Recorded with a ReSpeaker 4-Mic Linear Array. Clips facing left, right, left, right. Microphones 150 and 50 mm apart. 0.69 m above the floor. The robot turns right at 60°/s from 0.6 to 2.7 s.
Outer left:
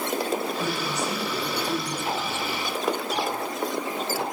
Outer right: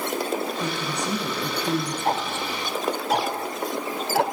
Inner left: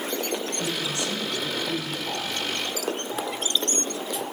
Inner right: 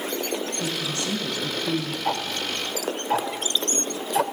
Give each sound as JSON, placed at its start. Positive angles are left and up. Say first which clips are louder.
{"t": 0.6, "sound": "a woman speaking", "louder": "even, even", "azimuth_deg": -170, "distance_m": 8.0}
{"t": 2.0, "sound": "ticking", "louder": "outer right 3 dB, inner right 3 dB", "side_deg": -45, "distance_m": 2.5}